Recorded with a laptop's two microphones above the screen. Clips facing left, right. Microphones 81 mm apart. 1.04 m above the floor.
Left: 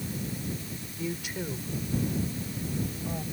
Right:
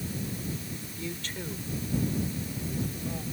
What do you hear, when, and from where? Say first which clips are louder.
1.0 s a woman speaking: left 5 dB; 10° left (ahead or behind); by 3.2 s 15° left (ahead or behind)